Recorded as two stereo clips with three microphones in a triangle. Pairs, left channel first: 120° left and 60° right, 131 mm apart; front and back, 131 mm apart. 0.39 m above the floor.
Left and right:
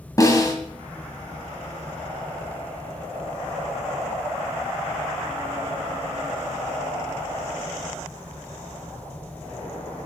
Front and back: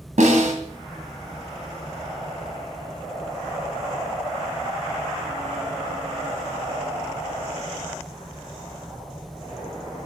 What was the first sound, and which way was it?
A snare drum, straight behind.